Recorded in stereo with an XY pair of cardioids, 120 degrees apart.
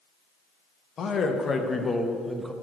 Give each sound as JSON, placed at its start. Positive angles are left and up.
{"t": 1.0, "sound": "a man speaking", "azimuth_deg": 40, "distance_m": 1.2}